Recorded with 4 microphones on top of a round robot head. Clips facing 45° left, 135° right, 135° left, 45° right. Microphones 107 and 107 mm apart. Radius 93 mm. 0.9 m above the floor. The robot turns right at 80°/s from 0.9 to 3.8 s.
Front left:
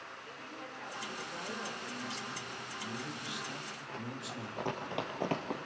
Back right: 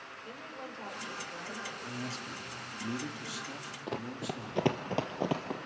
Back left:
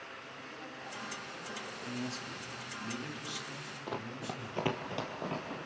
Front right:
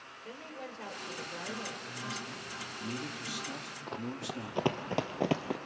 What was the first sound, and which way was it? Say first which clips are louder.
A woman speaking: back right 5 dB, front right 3 dB; 65° right.